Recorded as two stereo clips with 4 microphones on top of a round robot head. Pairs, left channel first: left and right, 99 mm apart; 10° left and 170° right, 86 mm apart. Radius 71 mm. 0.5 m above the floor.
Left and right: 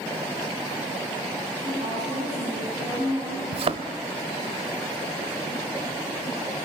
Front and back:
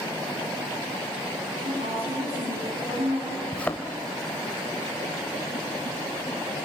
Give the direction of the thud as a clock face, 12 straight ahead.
2 o'clock.